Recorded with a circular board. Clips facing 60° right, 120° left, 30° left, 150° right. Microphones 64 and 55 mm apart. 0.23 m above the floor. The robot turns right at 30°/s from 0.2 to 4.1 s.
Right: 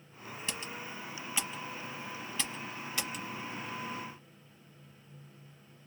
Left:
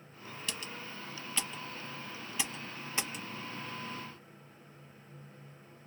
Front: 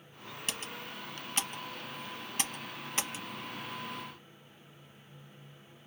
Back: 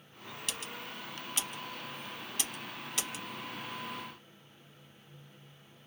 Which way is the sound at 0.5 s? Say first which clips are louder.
Right 1 dB, front 1 dB; 10° right.